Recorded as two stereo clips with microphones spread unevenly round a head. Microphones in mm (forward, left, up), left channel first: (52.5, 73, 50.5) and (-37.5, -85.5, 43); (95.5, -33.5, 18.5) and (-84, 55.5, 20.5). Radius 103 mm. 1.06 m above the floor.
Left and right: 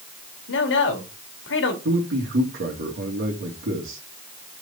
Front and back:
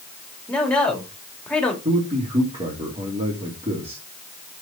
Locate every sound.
0.5 s a man speaking: 60° left, 2.5 m
1.9 s a man speaking: 145° right, 2.5 m